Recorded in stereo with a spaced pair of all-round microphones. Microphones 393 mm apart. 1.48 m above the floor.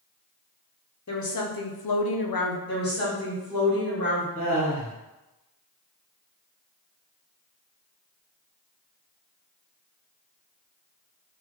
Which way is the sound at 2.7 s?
25° left (ahead or behind).